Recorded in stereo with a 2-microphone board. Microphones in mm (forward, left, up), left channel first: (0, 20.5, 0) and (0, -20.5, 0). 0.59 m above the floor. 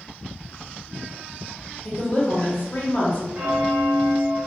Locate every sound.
1.9 s a woman speaking: 35° left (ahead or behind), 0.8 m
3.4 s a bell: 45° right (ahead or behind), 0.8 m